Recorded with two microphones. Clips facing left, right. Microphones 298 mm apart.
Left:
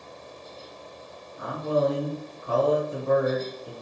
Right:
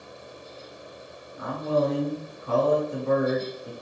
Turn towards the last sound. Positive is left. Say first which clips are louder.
# even
turn(degrees=-25)  # may be behind; listen again after turning